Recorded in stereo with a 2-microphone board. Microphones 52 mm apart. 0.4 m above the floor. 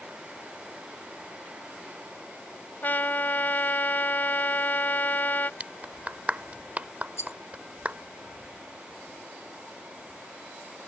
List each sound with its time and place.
2.8 s a trumpet: 35° left (ahead or behind)
5.6 s a clap: 30° right (ahead or behind)
7.2 s a rattle: 65° left (ahead or behind)